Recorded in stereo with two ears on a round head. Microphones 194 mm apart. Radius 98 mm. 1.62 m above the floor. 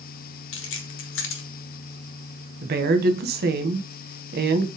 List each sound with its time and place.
0.5 s keys jangling: 60° left (ahead or behind), 1.3 m
2.6 s a woman speaking: 50° right (ahead or behind), 1.6 m